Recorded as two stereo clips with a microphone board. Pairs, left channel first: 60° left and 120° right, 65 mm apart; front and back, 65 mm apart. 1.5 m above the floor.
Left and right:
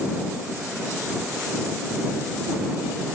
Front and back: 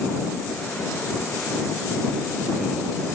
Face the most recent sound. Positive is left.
No sound to turn to.